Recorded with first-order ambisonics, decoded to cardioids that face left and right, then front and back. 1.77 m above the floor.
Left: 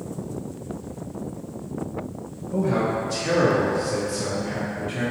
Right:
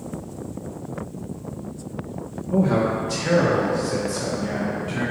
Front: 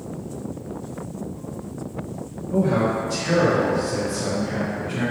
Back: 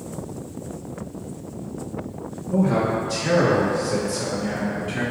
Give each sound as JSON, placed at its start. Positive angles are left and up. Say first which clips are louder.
{"t": 2.5, "sound": "a man speaking", "louder": "right 2 dB, even", "azimuth_deg": -95, "distance_m": 1.3}